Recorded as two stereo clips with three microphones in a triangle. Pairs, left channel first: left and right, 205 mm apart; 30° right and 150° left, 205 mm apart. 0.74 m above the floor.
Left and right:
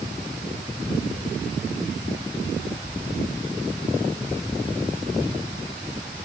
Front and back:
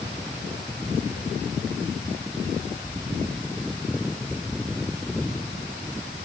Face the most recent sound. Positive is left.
No sound to turn to.